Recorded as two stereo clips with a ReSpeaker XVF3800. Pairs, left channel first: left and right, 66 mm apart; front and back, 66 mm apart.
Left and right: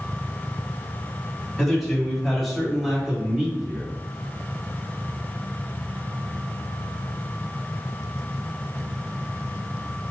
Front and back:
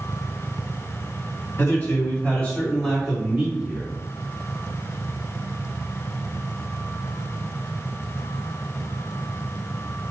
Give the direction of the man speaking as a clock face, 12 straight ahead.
12 o'clock.